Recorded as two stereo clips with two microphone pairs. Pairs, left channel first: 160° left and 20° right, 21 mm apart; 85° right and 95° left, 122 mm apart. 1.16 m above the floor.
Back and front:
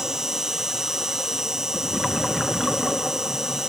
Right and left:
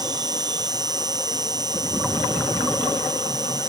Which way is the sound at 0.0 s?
40° left.